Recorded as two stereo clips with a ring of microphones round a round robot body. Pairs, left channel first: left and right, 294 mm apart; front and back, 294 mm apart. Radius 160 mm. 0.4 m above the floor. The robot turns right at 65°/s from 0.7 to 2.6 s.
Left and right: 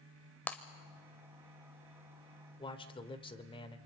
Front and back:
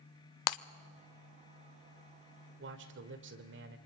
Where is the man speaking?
155° left, 1.5 m.